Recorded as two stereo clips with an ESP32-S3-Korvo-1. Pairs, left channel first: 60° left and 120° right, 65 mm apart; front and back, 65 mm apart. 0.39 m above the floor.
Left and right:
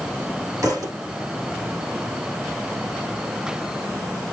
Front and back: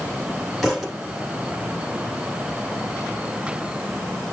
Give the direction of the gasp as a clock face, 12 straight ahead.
No gasp in this recording.